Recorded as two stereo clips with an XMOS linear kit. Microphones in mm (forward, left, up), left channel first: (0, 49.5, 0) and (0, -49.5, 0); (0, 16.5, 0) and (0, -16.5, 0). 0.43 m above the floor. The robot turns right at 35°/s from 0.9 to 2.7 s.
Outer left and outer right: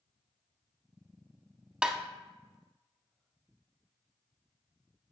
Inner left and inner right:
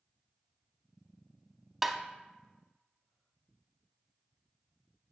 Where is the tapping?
10° right (ahead or behind), 0.6 m; by 2.0 s 5° right (ahead or behind), 0.6 m.